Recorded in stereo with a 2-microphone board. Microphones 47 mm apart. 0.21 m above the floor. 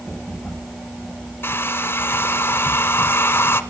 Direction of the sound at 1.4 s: 60° left (ahead or behind).